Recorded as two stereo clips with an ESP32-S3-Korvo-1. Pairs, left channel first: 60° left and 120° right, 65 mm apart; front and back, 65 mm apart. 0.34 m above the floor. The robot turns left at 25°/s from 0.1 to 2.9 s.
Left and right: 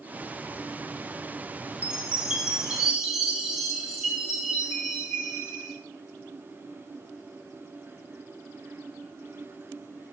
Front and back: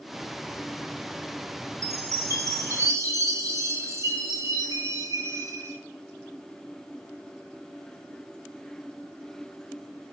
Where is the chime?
170° right, 3 m; by 5.7 s 160° left, 3 m.